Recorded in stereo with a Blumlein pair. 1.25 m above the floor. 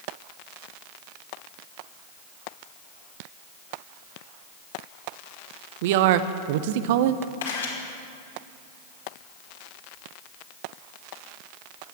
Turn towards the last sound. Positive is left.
turn(degrees=65)